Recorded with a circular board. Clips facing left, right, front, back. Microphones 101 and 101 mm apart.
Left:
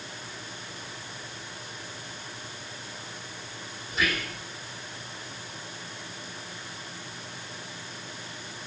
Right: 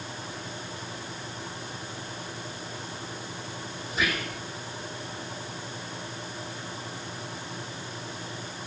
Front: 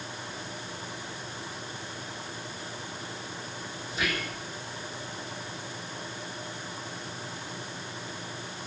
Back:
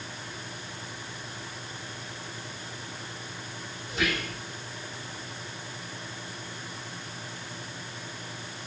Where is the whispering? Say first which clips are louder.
Even, back 2 dB; 175° right, 1.5 m.